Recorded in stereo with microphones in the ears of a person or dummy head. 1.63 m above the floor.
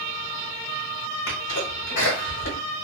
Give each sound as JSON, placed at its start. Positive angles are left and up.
{"t": 1.3, "sound": "a sneeze", "side_deg": 50, "distance_m": 1.0}